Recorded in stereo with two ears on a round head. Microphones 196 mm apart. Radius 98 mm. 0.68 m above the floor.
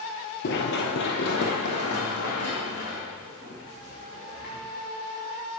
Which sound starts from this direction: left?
Running footsteps, at 0.4 s.